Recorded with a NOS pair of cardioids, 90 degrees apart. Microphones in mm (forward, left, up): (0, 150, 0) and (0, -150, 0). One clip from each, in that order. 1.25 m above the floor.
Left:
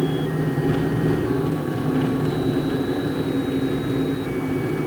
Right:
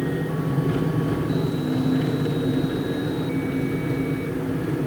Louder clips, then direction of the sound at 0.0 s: Left 3 dB; 30° left.